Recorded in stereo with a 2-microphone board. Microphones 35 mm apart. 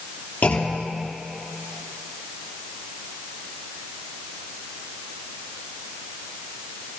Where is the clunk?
55° left (ahead or behind), 2.5 m.